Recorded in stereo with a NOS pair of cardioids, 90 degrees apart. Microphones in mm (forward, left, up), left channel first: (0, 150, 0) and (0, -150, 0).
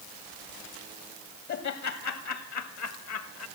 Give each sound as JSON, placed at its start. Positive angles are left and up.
{"t": 1.5, "sound": "laughter", "azimuth_deg": 65, "distance_m": 2.5}